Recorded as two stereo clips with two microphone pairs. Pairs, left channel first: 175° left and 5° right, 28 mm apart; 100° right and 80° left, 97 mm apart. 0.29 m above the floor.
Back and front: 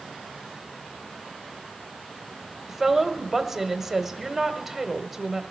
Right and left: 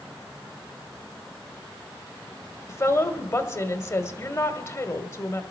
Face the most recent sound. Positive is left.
turn(degrees=-75)